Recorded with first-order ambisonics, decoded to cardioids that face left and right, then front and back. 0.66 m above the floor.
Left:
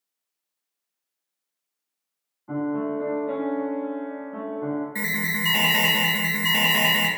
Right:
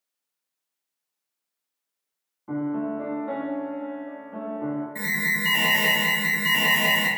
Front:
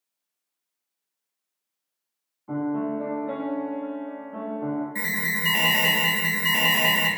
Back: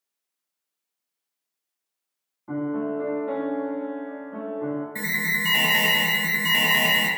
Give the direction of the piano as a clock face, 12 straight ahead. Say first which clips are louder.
Left 1 dB, even; 4 o'clock.